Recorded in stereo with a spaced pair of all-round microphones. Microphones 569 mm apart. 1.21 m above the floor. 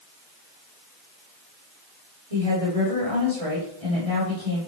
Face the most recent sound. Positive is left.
turn(degrees=-80)